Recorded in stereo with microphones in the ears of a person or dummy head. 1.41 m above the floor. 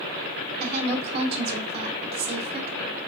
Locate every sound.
0.6 s a woman speaking: 55° right (ahead or behind), 1.5 m